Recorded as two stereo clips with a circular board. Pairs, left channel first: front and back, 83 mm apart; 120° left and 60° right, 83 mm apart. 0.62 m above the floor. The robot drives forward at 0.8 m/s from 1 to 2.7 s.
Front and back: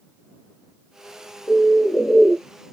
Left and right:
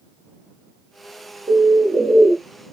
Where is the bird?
40° right, 1.0 m; by 2.4 s 105° right, 0.8 m.